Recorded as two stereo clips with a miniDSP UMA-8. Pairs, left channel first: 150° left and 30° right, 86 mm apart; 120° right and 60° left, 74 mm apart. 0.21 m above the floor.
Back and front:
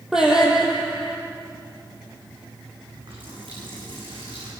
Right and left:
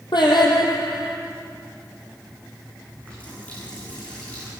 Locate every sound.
0.1 s singing: 115° right, 5 m
2.9 s a running tap: 50° right, 10 m